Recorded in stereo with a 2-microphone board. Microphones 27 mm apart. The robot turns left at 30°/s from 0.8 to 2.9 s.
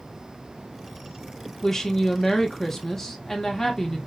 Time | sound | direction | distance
1.6 | a woman speaking | 20° left (ahead or behind) | 0.8 m